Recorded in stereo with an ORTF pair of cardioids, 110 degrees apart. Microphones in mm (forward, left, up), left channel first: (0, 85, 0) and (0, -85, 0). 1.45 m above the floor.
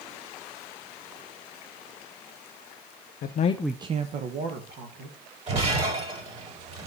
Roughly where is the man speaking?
Ahead left.